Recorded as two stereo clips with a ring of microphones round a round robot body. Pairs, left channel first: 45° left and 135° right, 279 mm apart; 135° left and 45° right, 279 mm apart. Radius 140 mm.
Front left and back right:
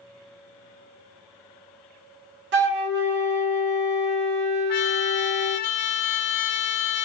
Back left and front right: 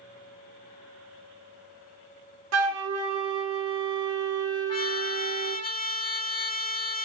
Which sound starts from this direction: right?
A flute, at 2.5 s.